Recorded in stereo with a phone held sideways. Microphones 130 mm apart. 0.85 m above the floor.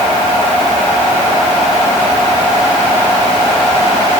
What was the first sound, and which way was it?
Only background noise.